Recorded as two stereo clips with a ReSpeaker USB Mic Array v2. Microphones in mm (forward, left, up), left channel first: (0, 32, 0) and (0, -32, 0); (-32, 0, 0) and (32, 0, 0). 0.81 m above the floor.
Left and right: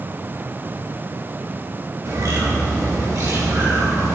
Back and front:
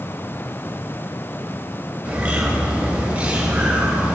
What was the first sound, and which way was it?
A bird, 65° right.